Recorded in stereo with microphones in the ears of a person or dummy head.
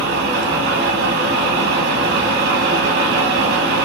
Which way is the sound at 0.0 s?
50° right (ahead or behind).